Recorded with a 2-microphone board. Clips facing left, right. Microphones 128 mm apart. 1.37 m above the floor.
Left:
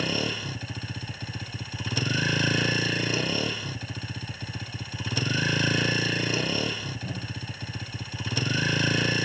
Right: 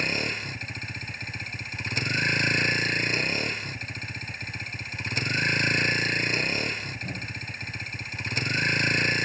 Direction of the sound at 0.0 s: 10° left (ahead or behind).